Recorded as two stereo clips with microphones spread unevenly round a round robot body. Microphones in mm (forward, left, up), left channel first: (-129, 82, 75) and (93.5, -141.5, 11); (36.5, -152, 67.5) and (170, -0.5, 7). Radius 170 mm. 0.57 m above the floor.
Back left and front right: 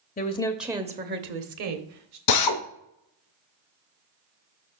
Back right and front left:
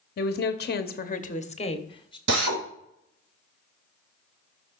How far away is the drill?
About 0.9 m.